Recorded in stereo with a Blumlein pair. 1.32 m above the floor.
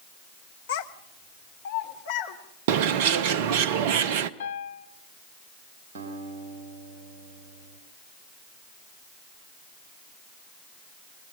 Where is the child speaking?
55° left, 1.5 m.